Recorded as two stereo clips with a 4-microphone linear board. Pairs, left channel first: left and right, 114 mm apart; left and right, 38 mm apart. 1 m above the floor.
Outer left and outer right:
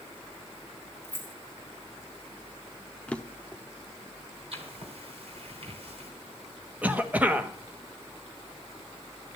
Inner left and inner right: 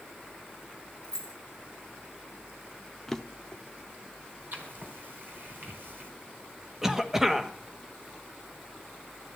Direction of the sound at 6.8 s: 10° right (ahead or behind).